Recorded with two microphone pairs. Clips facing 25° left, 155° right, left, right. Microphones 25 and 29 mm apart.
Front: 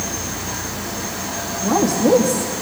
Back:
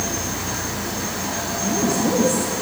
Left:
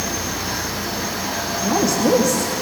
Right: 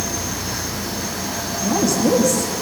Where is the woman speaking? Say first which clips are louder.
Front 5 dB, even; 15° left, 6 m.